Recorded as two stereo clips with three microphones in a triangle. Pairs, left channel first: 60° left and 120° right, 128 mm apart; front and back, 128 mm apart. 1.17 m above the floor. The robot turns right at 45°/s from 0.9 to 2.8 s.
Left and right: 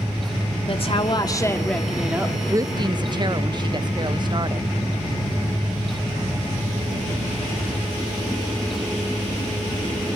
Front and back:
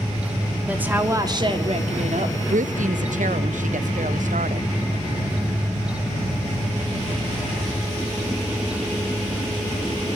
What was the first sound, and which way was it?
A woman speaking, 105° left.